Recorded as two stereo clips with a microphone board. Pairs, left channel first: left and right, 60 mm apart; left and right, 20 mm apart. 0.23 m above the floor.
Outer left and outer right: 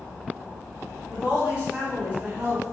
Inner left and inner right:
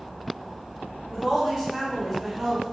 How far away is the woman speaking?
About 1.2 m.